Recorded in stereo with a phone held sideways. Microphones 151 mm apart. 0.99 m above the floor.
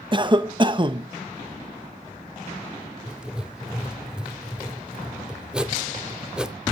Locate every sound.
0.1 s a cough: 30° right (ahead or behind), 0.8 m
3.1 s writing: 5° right (ahead or behind), 0.6 m